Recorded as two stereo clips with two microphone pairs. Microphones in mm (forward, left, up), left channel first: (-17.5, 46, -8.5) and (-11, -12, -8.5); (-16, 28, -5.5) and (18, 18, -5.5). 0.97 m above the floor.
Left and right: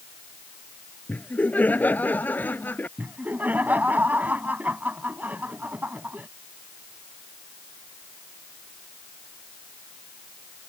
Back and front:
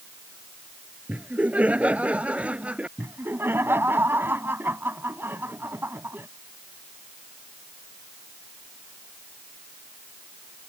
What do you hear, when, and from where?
1.1 s laughter: 35° left
3.0 s laughter: 20° right